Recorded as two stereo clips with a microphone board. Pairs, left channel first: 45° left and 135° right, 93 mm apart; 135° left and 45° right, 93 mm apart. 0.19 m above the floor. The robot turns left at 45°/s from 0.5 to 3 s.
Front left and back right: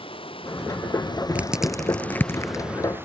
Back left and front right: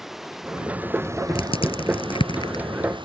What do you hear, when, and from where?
0.0 s running water: 40° left; by 3.0 s 70° right
1.4 s crushing: 150° left; by 2.6 s 95° left